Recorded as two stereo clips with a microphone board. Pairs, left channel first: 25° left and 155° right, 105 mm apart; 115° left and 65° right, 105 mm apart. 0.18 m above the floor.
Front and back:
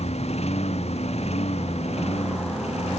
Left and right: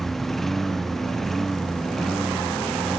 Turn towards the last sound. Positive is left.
turn(degrees=25)